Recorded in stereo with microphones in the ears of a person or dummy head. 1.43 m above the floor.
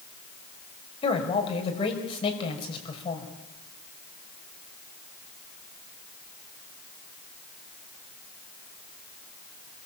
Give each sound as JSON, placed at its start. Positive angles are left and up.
{"t": 1.0, "sound": "a man speaking", "side_deg": 30, "distance_m": 5.5}